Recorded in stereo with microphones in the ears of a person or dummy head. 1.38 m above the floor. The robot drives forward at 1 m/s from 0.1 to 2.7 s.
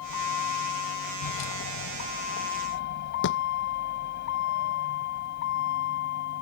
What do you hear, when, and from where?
0.0 s a vehicle: 80° left; by 6.4 s 60° left (ahead or behind)
3.2 s a thud: 65° left (ahead or behind)